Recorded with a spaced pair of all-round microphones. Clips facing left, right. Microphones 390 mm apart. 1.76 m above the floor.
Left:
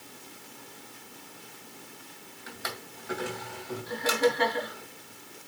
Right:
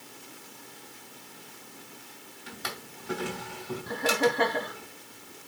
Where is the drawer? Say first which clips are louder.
Even; 45° right (ahead or behind), 2 m.